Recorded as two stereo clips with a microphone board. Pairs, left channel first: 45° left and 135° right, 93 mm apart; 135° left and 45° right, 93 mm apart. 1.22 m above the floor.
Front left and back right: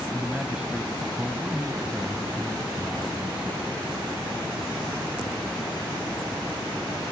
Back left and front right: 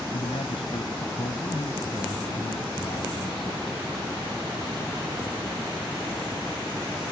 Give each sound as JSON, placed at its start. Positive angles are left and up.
{"t": 0.1, "sound": "a man speaking", "azimuth_deg": 145}